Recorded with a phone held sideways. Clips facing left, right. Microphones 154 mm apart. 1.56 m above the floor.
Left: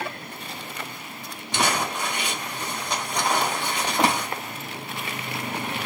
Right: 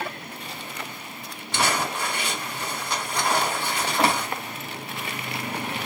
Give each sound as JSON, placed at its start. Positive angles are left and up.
{"t": 1.5, "sound": "crumpling", "side_deg": 15, "distance_m": 1.4}